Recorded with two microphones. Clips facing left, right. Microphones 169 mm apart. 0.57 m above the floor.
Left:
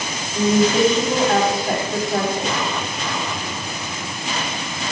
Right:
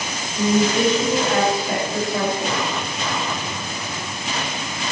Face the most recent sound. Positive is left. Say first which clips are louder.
# left 2 dB
turn(degrees=70)  # may be behind; listen again after turning